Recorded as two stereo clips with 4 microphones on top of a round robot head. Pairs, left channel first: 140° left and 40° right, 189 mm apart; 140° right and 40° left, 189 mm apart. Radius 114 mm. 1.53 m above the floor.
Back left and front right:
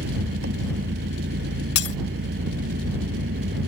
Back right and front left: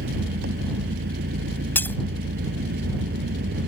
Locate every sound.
0.0 s an engine running: straight ahead
1.8 s breaking glass: 140° left